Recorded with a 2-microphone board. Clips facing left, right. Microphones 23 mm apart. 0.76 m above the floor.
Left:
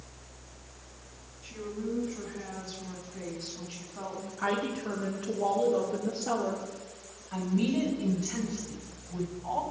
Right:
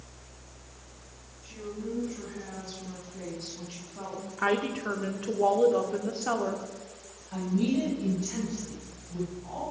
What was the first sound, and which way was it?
A woman speaking, 35° left (ahead or behind).